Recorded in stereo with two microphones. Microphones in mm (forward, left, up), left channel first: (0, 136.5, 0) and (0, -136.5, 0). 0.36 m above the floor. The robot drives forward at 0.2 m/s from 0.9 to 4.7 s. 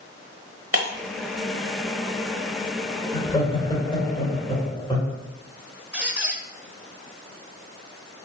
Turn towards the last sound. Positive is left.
turn(degrees=-5)  # may be behind; listen again after turning